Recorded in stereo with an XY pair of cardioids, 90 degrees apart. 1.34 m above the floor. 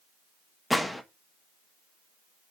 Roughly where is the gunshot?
Ahead.